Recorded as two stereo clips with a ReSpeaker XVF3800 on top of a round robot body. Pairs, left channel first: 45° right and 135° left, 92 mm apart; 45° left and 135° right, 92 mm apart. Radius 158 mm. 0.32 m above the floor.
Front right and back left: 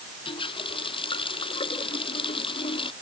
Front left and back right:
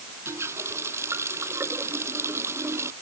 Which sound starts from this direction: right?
A running tap, at 0.2 s.